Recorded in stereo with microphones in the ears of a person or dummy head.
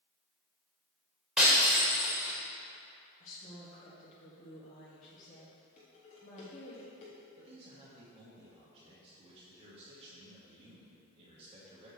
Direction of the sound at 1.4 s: Centre (ahead or behind).